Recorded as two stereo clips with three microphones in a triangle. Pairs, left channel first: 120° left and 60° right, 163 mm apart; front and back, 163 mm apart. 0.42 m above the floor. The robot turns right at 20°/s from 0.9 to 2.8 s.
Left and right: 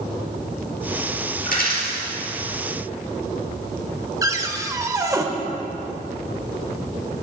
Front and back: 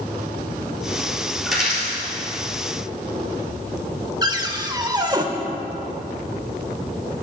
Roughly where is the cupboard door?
Behind right.